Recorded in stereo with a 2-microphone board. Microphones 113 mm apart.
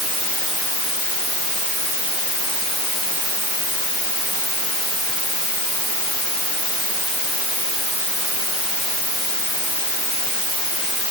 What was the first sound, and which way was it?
Only background noise.